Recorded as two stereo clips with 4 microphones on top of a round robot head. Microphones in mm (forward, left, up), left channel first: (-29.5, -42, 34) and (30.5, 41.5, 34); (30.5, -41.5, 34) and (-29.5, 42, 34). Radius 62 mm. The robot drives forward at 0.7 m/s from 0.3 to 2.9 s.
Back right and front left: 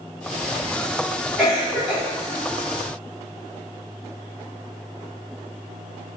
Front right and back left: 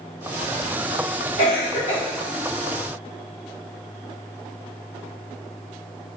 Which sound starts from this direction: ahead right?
A cough, at 1.4 s.